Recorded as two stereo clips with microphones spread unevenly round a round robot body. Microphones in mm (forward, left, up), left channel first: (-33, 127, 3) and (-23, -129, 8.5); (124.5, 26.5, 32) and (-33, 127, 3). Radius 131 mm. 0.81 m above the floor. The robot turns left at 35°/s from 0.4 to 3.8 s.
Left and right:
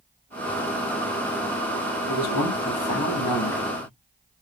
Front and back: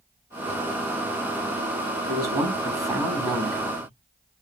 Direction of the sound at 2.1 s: 105° left.